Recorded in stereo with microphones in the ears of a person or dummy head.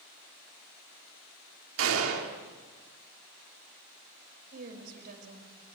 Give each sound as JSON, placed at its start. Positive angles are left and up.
{"t": 1.8, "sound": "a gunshot", "side_deg": -75, "distance_m": 3.0}
{"t": 4.5, "sound": "a woman speaking", "side_deg": -55, "distance_m": 6.0}